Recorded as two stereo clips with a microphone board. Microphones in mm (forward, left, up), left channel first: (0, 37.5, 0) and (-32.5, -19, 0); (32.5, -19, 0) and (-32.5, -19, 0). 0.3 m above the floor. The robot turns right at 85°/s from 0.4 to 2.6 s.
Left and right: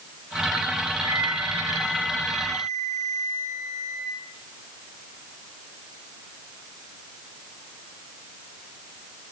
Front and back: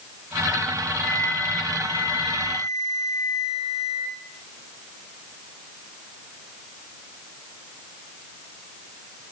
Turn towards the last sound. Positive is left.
turn(degrees=45)